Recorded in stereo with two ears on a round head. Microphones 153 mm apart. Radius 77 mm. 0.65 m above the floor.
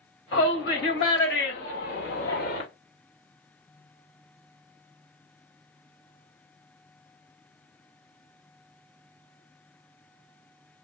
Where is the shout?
75° left (ahead or behind), 3.5 m; by 2.6 s 65° left (ahead or behind), 2 m.